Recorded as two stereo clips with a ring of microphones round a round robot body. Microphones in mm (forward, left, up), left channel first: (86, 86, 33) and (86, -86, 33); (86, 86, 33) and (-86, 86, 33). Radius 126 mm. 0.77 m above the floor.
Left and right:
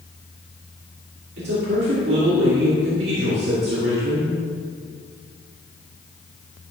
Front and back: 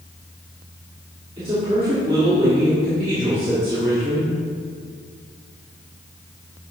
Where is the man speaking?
115° right, 1.9 m.